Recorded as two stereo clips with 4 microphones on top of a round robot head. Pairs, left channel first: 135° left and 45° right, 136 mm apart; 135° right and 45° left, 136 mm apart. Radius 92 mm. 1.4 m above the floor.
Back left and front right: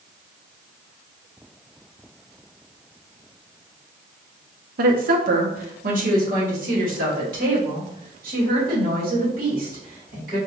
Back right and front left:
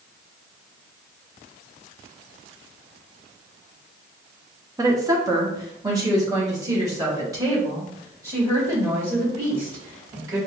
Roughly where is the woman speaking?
Ahead right.